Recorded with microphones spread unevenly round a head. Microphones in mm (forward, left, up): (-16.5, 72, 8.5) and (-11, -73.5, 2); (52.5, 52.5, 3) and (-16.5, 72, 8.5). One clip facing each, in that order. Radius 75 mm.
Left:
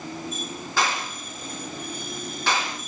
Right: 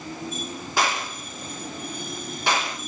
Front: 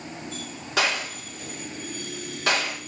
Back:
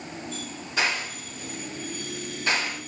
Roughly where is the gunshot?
Ahead.